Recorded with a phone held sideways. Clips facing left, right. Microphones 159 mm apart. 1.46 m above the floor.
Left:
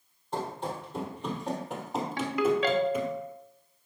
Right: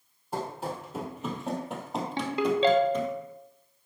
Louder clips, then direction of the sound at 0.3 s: Even; 10° right (ahead or behind).